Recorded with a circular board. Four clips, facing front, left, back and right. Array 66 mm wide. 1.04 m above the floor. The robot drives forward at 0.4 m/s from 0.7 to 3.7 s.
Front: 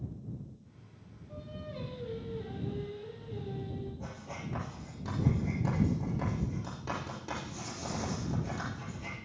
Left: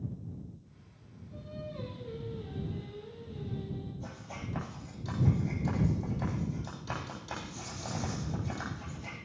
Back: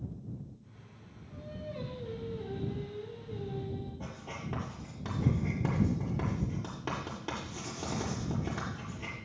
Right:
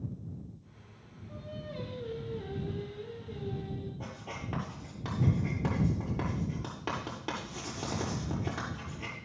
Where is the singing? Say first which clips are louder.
Right 1 dB, back 1 dB; 70° right, 8.5 m; by 3.9 s 75° right, 8 m.